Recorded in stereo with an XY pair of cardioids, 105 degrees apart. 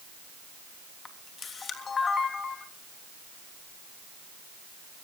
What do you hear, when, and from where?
1.1 s a camera shutter: 40° left, 3 m